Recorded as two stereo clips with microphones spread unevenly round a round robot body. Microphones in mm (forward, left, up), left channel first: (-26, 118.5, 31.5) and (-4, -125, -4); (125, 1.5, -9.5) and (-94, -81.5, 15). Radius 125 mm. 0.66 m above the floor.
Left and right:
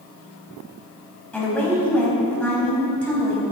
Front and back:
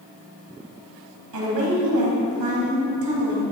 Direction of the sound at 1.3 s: Straight behind.